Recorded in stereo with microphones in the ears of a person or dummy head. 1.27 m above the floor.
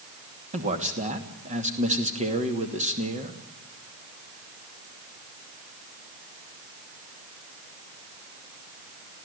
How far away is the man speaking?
About 2.5 m.